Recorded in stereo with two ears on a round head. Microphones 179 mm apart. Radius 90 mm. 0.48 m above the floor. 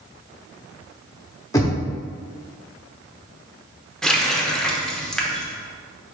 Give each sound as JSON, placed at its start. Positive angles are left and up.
{"t": 1.5, "sound": "knocking", "side_deg": 15, "distance_m": 0.6}
{"t": 4.0, "sound": "a running tap", "side_deg": 5, "distance_m": 0.5}